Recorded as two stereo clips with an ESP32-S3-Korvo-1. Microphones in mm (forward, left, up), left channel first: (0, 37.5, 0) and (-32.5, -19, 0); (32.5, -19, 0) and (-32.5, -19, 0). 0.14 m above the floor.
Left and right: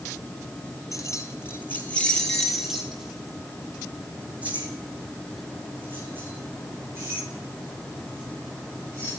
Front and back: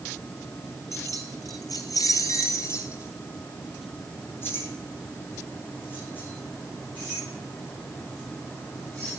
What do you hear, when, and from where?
0.9 s keys jangling: 30° left, 2 m; by 9.1 s 65° right, 10 m